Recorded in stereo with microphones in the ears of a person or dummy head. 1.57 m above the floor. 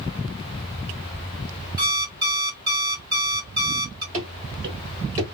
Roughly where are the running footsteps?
Right.